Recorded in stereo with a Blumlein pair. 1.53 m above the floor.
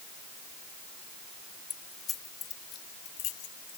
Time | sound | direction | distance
1.7 | keys jangling | 20° left | ?